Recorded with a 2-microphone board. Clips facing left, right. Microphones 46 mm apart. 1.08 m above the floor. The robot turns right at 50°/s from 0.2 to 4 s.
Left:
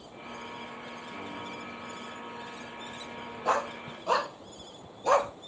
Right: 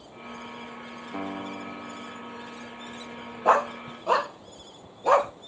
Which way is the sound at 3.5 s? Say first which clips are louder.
Right 7 dB; 30° right (ahead or behind).